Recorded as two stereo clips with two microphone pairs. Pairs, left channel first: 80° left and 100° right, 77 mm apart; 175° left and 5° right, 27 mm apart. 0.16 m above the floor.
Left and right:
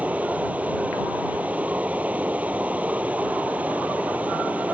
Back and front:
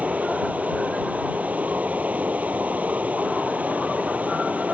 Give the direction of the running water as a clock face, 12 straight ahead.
1 o'clock.